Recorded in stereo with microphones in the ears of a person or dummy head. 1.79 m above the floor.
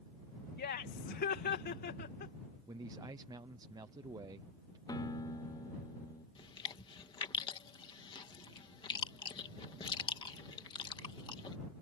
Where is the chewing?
20° left (ahead or behind).